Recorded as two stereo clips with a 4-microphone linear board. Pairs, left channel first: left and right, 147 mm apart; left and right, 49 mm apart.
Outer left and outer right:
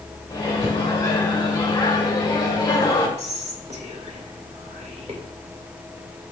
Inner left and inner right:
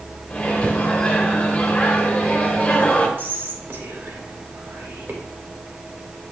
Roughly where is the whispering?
Right.